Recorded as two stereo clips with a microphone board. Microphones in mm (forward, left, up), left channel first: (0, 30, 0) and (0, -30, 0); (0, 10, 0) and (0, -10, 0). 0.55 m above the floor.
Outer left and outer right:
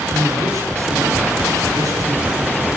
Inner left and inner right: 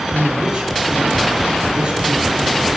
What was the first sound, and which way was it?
A man speaking, 60° right (ahead or behind).